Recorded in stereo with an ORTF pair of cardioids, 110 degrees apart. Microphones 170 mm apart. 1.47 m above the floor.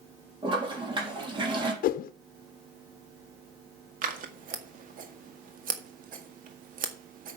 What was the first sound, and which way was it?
A toilet flushing, 30° right.